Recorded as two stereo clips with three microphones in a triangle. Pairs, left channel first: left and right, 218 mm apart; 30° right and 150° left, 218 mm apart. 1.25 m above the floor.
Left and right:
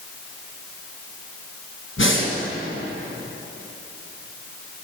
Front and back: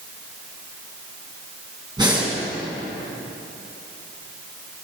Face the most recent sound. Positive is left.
turn(degrees=80)